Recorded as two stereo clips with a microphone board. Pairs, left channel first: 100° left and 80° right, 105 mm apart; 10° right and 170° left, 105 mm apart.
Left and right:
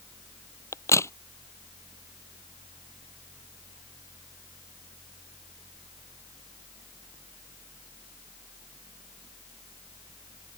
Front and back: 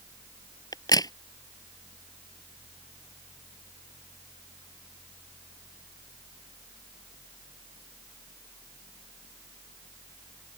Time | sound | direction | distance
0.7 | a crack | 40° left | ?